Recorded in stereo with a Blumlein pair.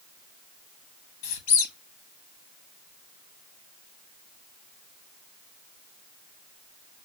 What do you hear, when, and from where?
1.2 s a squeak: 45° left, 1.0 m